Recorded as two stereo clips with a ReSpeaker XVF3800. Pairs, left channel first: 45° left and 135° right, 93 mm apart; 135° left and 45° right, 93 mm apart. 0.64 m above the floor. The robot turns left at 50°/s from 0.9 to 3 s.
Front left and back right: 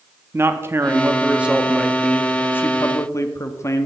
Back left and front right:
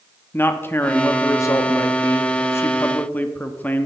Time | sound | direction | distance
0.3 | a man speaking | straight behind | 0.6 m